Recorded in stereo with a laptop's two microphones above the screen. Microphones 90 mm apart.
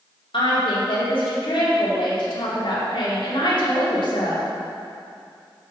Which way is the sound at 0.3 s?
75° left (ahead or behind).